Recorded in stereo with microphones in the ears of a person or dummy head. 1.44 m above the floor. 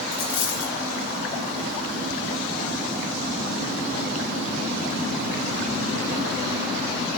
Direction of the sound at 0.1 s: 55° left (ahead or behind).